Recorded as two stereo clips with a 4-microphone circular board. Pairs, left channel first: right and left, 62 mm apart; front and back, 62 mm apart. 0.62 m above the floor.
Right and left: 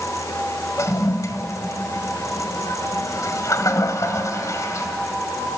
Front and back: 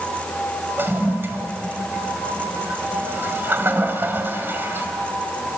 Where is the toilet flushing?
125° right, 1.6 m.